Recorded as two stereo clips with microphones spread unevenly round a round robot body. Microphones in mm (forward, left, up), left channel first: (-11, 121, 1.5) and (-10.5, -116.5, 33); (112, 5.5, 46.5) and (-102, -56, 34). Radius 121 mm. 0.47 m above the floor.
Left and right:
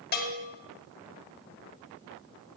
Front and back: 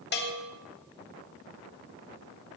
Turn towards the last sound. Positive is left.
turn(degrees=55)